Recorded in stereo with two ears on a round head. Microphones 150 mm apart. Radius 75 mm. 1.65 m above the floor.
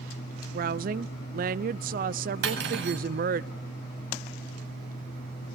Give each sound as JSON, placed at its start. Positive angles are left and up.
{"t": 0.5, "sound": "a woman speaking", "side_deg": -55, "distance_m": 0.7}
{"t": 2.4, "sound": "cutlery clinking", "side_deg": -75, "distance_m": 7.5}